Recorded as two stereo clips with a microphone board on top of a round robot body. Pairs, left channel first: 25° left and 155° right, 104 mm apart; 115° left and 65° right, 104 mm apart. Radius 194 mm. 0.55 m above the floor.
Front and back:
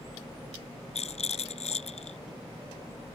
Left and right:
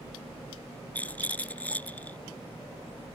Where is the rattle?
35° left.